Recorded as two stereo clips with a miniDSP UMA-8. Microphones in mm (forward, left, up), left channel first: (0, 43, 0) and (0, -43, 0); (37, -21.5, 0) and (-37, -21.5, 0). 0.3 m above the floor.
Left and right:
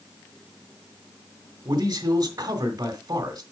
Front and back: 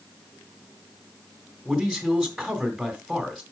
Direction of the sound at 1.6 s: 85° right.